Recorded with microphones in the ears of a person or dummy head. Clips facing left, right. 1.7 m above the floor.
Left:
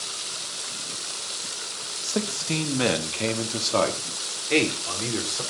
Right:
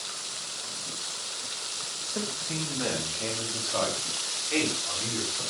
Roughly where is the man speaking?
Left.